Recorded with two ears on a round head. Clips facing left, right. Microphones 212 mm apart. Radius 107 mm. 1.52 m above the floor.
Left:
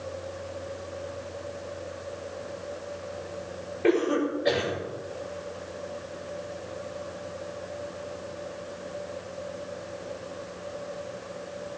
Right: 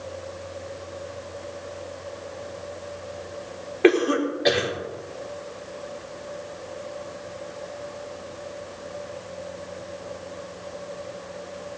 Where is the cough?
85° right, 4.5 m.